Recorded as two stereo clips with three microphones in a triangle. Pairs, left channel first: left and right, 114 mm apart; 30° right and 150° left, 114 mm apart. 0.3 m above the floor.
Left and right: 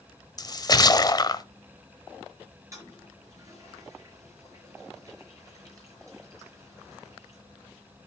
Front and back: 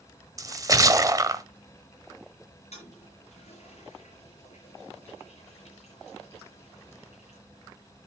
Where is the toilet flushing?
30° right, 5.5 m.